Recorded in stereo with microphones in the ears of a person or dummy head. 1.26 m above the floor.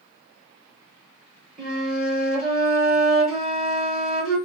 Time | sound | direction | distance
1.6 | a flute | centre (ahead or behind) | 1.2 m